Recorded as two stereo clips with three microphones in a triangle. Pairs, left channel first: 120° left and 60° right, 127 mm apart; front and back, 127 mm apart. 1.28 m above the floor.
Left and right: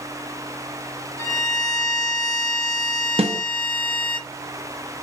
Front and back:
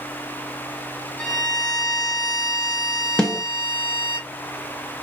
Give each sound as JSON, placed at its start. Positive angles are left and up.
{"t": 1.2, "sound": "a violin", "azimuth_deg": 75, "distance_m": 1.2}
{"t": 3.2, "sound": "a snare drum", "azimuth_deg": -80, "distance_m": 1.0}